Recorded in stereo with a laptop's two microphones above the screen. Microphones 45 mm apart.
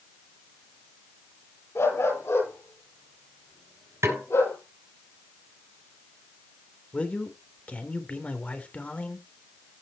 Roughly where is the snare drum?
Right.